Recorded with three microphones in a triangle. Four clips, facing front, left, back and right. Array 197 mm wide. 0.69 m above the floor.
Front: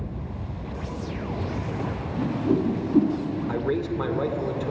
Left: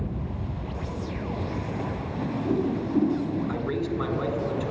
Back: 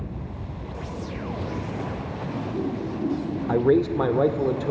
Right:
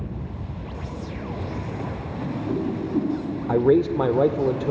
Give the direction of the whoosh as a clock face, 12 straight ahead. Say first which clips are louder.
Left 1 dB, front 7 dB; 12 o'clock.